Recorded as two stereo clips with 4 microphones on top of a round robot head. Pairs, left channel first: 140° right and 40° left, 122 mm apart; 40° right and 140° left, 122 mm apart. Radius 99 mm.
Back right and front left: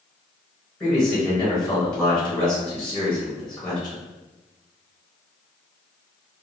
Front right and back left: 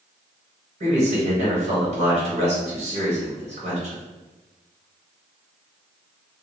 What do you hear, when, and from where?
0.8 s a man speaking: 150° left, 1.8 m